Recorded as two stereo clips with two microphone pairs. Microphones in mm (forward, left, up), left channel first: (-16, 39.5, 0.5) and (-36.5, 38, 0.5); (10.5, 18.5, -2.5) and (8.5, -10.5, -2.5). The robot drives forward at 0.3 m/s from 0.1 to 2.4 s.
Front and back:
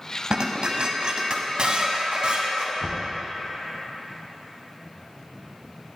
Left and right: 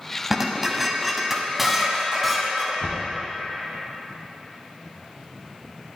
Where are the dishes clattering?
175° right, 1.0 m.